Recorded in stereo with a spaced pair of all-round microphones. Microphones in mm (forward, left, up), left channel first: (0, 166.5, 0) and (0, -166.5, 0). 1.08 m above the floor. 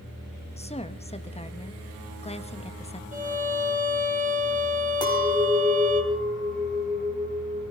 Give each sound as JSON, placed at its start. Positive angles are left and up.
{"t": 0.6, "sound": "a woman speaking", "side_deg": 20, "distance_m": 1.3}
{"t": 3.1, "sound": "a violin", "side_deg": -25, "distance_m": 2.5}
{"t": 5.0, "sound": "a clink", "side_deg": 15, "distance_m": 4.5}